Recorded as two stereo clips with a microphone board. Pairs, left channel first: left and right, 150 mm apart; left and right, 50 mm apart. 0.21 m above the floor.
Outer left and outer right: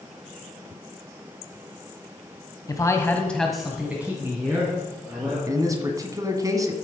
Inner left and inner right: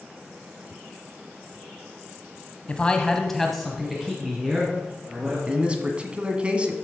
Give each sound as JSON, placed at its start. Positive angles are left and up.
{"t": 2.7, "sound": "a man speaking", "side_deg": 25, "distance_m": 1.3}
{"t": 5.5, "sound": "a man speaking", "side_deg": -25, "distance_m": 1.3}